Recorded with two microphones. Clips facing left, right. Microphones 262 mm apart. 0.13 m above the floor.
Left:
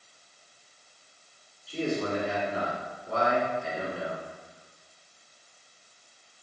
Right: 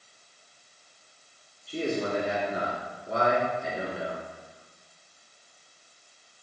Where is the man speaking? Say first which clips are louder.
Even; 20° right (ahead or behind), 1.9 m.